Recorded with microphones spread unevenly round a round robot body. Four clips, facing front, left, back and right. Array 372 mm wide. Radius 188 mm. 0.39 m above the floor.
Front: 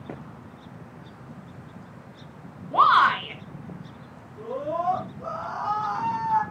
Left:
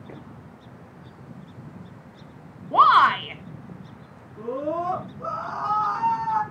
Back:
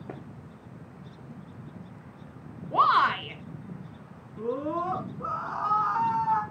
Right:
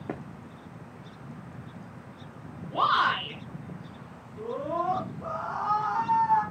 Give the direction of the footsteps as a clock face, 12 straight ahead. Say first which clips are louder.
Right 7 dB, front 3 dB; 2 o'clock.